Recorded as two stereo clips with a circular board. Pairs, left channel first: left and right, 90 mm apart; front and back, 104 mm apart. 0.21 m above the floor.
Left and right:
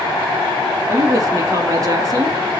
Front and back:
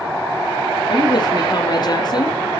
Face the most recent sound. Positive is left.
turn(degrees=-45)